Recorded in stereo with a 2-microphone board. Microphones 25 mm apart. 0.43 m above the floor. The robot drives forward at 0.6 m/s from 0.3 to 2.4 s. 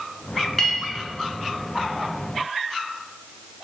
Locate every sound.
0.6 s a clink: 5° left (ahead or behind), 2 m